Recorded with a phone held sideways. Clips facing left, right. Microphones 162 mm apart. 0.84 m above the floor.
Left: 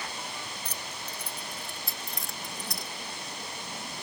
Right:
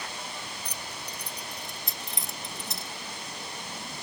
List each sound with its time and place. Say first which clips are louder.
0.7 s keys jangling: even; 15° right (ahead or behind); by 2.9 s 25° right (ahead or behind)